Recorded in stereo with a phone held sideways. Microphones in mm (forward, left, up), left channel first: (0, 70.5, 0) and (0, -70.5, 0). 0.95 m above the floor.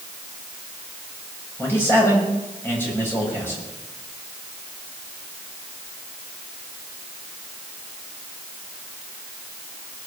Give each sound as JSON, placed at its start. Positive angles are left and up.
{"t": 1.6, "sound": "a man speaking", "side_deg": 15, "distance_m": 6.0}